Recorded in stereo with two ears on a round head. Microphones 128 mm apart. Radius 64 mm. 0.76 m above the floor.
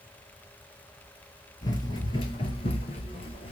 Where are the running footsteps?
25° left (ahead or behind), 1.0 m; by 3.5 s 35° left (ahead or behind), 1.0 m.